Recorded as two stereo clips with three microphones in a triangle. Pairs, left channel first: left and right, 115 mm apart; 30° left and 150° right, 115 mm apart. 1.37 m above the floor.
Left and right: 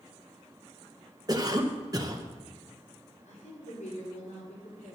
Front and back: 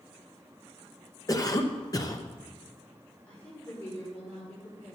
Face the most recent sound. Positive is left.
turn(degrees=105)